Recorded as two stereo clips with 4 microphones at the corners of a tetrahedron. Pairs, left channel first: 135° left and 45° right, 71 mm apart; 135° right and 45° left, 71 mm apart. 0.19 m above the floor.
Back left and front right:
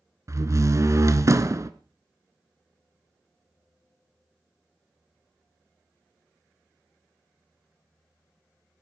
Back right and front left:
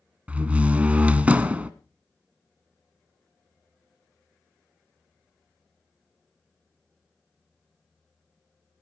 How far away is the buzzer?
I don't hear a buzzer.